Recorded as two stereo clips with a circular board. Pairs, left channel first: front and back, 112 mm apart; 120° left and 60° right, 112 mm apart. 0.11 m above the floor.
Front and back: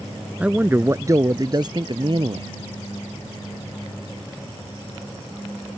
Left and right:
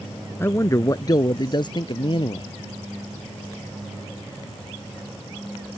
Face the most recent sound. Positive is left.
turn(degrees=150)